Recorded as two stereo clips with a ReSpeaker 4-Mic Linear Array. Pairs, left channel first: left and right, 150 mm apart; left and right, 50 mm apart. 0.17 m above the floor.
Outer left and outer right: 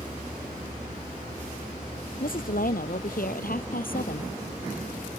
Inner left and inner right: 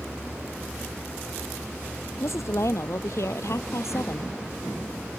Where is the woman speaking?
70° left (ahead or behind); by 4.3 s 75° left (ahead or behind).